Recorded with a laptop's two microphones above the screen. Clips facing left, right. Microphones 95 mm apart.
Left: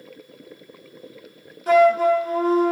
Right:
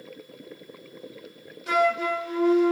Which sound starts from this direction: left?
A flute, at 1.7 s.